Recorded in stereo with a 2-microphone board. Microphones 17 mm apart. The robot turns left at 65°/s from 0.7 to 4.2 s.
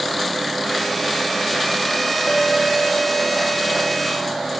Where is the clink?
70° left, 1.1 m; by 4.5 s 60° right, 1.1 m.